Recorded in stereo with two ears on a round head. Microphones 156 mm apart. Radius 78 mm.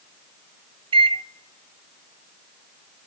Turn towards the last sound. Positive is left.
turn(degrees=-30)  # may be behind; listen again after turning